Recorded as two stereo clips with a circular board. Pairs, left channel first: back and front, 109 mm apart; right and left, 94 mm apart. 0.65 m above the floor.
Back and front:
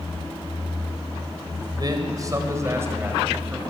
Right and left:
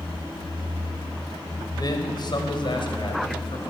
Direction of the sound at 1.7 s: 45° right.